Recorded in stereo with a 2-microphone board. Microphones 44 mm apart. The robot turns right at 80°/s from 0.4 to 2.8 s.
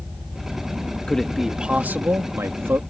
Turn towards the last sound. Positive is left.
turn(degrees=-60)